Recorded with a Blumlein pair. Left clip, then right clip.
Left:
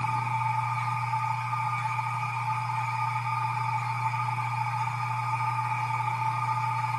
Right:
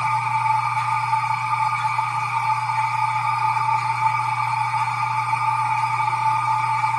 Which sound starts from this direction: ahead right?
A machine running, at 0.0 s.